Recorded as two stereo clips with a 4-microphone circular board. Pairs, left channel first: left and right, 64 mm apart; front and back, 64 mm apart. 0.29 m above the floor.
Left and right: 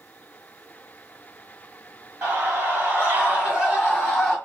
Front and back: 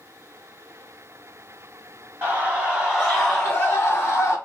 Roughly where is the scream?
Behind right.